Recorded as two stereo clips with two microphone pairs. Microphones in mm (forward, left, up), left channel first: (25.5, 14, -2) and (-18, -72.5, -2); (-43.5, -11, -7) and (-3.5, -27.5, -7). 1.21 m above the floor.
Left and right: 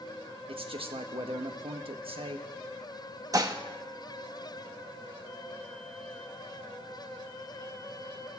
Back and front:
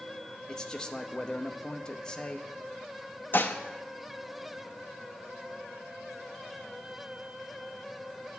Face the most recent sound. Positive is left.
turn(degrees=-165)